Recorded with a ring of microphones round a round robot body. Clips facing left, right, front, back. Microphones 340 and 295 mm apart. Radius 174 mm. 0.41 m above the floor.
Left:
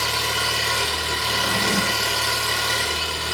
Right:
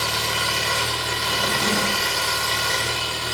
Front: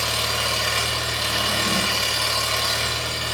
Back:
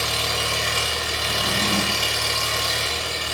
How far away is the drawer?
About 1.1 m.